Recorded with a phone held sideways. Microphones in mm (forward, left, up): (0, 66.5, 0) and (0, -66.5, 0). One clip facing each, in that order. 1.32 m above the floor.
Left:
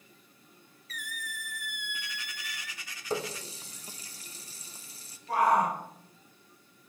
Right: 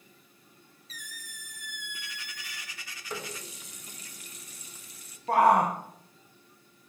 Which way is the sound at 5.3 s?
60° right (ahead or behind).